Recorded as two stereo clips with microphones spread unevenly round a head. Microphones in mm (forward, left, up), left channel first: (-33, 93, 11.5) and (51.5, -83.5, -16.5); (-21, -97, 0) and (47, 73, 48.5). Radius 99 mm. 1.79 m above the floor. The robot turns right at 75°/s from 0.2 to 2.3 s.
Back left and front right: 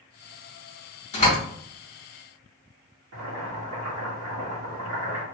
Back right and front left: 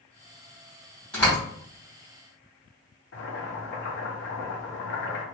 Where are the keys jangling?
I don't hear keys jangling.